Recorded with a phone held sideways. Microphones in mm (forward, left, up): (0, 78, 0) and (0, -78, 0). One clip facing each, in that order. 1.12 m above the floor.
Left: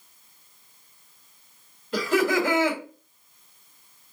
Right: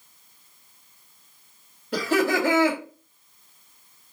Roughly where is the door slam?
I don't hear a door slam.